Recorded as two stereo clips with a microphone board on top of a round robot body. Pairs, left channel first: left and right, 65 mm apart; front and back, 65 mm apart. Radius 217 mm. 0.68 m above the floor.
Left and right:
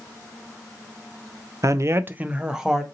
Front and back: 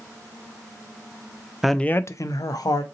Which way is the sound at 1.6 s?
95° right.